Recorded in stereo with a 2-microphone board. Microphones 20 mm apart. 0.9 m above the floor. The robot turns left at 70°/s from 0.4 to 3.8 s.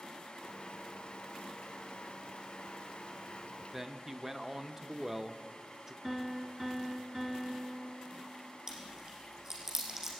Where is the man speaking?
15° right (ahead or behind), 0.5 m.